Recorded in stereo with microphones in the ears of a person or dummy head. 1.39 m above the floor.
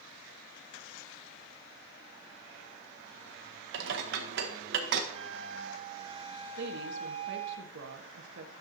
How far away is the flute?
About 1.9 m.